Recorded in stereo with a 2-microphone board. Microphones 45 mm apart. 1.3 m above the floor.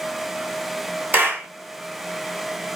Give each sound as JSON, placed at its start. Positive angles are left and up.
{"t": 1.1, "sound": "a clap", "side_deg": -40, "distance_m": 1.2}